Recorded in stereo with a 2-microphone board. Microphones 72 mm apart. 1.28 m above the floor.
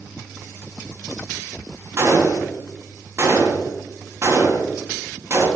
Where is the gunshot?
40° right (ahead or behind), 1.7 m.